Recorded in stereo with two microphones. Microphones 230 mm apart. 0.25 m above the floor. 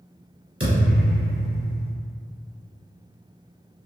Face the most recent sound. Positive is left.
turn(degrees=-70)  # may be behind; listen again after turning